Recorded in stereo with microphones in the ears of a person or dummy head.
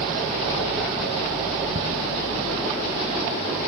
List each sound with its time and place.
1.8 s ticking: 25° right (ahead or behind), 0.5 m